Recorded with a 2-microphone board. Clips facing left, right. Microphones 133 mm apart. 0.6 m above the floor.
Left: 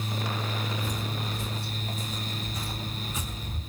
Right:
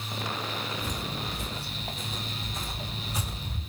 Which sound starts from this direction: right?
Footsteps, at 0.8 s.